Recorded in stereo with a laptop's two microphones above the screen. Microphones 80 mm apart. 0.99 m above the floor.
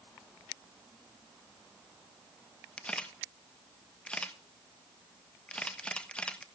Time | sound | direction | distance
2.8 | a camera shutter | 15° left (ahead or behind) | 1.2 m